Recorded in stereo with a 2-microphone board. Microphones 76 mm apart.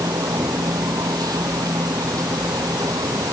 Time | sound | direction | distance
0.0 | an insect | 60° right (ahead or behind) | ?